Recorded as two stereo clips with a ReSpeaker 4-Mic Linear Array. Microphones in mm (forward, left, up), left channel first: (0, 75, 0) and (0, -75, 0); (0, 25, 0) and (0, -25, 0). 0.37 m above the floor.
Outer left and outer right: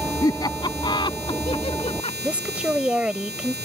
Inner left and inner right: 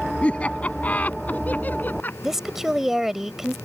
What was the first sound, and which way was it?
Laughter, 25° left (ahead or behind).